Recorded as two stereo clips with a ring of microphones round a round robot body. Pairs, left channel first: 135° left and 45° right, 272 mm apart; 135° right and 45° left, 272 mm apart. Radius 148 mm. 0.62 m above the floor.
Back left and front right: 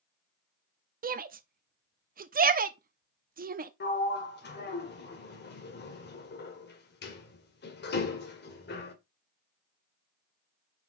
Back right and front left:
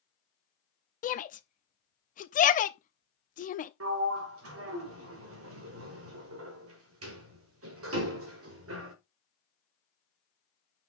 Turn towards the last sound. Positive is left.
turn(degrees=85)